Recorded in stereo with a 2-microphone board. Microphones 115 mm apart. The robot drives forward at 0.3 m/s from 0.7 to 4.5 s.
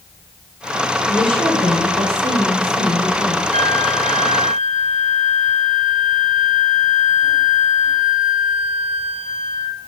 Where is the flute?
80° right, 0.5 m; by 9.8 s 60° right (ahead or behind), 0.6 m.